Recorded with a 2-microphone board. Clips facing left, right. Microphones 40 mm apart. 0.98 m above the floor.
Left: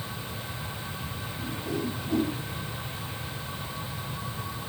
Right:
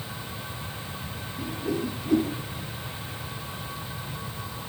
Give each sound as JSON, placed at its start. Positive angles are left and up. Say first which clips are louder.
{"t": 1.4, "sound": "a whoosh", "louder": "right 3 dB", "side_deg": -80, "distance_m": 4.0}